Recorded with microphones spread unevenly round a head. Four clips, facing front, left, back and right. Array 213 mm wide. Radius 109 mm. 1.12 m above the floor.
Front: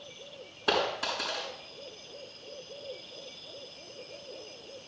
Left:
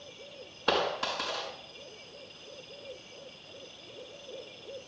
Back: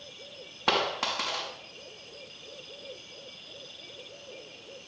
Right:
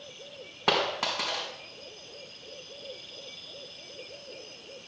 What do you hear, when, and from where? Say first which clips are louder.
0.7 s a dropped coin: right 1 dB, back 1 dB; 130° right, 5 m